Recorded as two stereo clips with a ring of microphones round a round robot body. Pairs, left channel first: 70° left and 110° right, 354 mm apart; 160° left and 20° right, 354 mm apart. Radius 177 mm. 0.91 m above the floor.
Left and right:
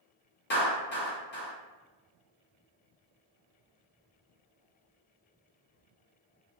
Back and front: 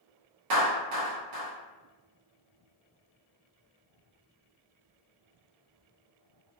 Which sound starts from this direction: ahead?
A clap, at 0.5 s.